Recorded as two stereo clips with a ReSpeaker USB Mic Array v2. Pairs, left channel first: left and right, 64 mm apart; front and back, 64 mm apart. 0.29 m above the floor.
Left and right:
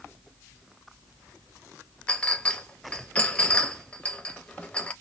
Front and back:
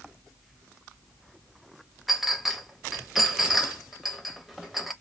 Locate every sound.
2.1 s a clink: 95° left, 0.5 m